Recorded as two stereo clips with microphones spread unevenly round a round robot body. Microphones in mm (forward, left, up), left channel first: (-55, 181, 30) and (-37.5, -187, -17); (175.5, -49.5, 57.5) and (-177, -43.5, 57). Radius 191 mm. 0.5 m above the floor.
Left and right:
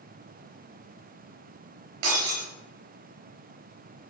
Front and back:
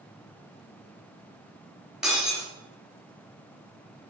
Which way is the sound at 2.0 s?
95° right.